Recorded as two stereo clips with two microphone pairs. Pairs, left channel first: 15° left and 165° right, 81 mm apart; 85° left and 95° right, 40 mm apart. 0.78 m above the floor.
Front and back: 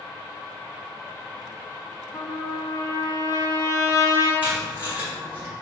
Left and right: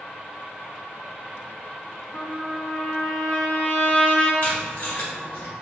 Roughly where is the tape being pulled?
Behind left.